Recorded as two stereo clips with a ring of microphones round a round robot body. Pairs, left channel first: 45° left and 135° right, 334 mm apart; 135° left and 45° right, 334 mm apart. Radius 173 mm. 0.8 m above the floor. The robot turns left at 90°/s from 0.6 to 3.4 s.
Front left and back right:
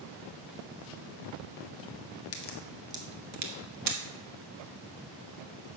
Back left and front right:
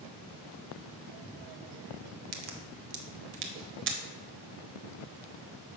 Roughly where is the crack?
Ahead.